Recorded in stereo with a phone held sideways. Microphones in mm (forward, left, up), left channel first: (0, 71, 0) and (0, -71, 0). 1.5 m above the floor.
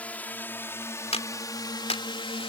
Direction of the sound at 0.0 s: 10° left (ahead or behind).